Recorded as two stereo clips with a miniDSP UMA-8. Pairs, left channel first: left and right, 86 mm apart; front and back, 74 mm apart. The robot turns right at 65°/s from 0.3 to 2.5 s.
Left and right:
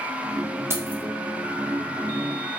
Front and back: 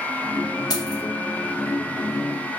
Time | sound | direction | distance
0.7 | keys jangling | 30° right | 0.6 m